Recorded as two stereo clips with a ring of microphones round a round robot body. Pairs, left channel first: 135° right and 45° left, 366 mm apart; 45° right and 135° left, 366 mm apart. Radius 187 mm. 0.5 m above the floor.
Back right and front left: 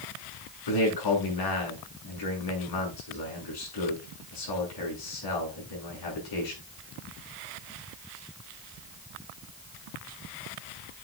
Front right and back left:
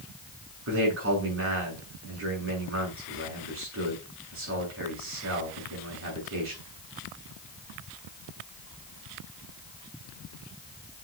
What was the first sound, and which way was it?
A man speaking, 170° right.